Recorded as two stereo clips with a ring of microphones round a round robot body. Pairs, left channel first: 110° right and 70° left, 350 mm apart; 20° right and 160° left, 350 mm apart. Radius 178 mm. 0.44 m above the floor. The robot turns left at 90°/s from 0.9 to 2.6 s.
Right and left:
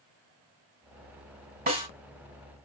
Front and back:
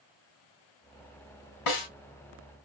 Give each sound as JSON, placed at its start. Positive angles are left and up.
{"t": 1.7, "sound": "a snare drum", "azimuth_deg": 5, "distance_m": 4.0}